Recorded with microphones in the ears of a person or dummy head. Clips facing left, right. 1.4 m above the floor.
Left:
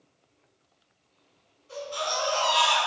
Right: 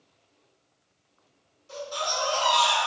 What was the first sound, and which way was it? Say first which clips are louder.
A baby crying: left 1 dB; 55° right (ahead or behind).